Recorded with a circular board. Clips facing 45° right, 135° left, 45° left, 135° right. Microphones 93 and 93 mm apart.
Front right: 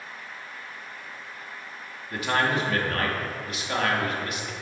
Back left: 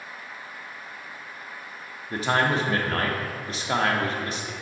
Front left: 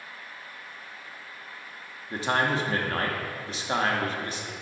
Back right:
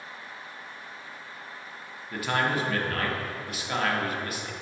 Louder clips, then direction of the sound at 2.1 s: Back left 2 dB, front left 1 dB; 95° left.